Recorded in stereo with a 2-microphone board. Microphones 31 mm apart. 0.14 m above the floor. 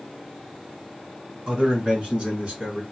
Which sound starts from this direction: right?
A man speaking, at 1.5 s.